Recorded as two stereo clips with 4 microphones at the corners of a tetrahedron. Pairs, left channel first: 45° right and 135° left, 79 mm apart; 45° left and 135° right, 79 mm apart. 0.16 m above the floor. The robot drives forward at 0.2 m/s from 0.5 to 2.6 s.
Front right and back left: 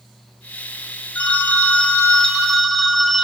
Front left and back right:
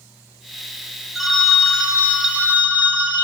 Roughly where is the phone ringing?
Ahead right.